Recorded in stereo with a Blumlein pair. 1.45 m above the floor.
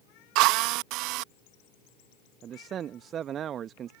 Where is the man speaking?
25° right.